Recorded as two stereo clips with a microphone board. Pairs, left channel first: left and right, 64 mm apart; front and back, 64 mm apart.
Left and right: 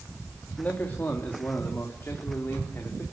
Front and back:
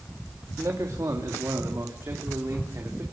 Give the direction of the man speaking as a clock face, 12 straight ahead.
7 o'clock.